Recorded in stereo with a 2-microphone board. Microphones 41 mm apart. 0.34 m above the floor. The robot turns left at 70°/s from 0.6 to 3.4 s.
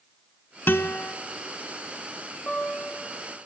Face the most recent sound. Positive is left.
turn(degrees=85)